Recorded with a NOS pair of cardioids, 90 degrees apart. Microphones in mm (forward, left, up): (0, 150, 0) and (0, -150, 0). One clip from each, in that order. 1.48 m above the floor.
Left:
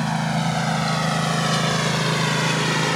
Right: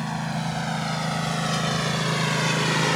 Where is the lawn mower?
45° left; by 3.0 s 5° left.